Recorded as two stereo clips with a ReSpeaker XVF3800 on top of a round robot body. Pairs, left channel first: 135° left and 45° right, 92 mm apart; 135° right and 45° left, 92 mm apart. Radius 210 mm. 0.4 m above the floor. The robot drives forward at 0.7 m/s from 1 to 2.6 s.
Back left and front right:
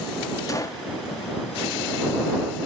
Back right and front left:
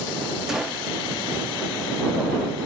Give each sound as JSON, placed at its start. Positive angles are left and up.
{"t": 0.5, "sound": "a gunshot", "azimuth_deg": 125, "distance_m": 1.6}